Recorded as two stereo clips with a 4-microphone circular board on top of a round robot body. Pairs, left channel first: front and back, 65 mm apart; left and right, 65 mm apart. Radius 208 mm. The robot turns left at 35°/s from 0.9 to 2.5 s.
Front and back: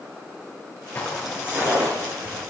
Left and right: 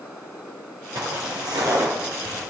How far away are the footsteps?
About 1.0 m.